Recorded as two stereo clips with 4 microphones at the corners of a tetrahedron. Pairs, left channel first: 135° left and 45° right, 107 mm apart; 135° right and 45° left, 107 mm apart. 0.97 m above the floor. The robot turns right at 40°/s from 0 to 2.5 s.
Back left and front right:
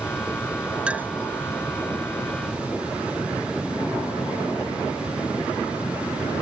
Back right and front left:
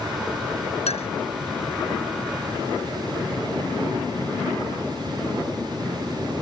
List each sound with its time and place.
0.9 s a clink: 125° right; by 1.1 s 115° right